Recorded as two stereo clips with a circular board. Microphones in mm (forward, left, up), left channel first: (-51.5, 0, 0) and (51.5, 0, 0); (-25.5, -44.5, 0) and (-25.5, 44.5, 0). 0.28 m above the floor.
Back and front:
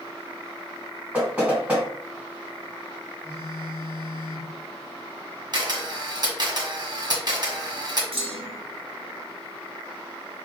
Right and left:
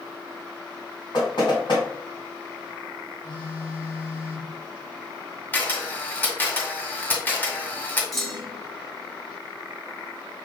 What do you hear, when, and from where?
1.1 s knocking: 80° right, 2 m
3.2 s a phone buzzing: 120° right, 1.7 m
5.5 s a camera shutter: 30° right, 1.5 m
8.1 s a clunk: straight ahead, 1.2 m